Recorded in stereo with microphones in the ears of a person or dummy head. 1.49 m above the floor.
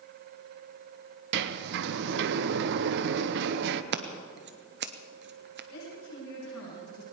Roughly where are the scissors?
Right.